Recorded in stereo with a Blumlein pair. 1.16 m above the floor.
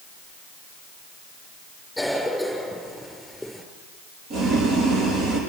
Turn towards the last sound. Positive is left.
turn(degrees=-35)